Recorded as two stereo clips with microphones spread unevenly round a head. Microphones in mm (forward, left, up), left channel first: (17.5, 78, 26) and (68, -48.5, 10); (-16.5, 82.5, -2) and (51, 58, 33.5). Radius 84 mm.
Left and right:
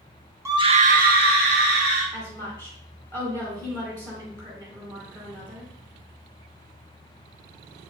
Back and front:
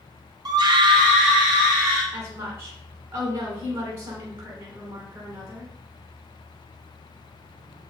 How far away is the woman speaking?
About 2 m.